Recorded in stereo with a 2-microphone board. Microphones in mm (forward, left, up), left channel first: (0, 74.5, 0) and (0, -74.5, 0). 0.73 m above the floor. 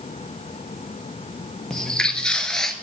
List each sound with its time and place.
1.7 s footsteps: 5° left (ahead or behind), 1.1 m